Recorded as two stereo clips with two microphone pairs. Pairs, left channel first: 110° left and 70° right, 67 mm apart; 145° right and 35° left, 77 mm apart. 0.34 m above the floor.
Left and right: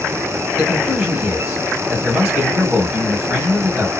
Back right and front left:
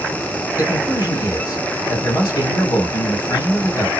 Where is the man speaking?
160° right, 2.5 m.